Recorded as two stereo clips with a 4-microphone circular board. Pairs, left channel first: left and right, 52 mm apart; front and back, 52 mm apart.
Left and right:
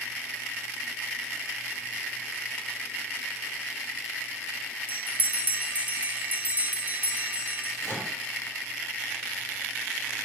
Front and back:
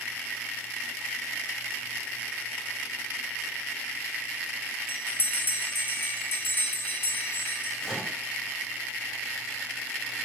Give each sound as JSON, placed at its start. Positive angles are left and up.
{"t": 4.9, "sound": "a bell", "azimuth_deg": -35, "distance_m": 0.6}
{"t": 7.8, "sound": "a microwave", "azimuth_deg": -90, "distance_m": 1.6}